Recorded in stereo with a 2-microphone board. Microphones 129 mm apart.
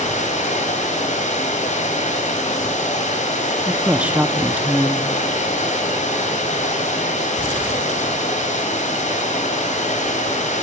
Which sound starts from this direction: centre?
A woman speaking, at 3.7 s.